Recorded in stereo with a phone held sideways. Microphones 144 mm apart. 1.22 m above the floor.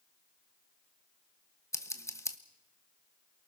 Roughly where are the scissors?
Centre.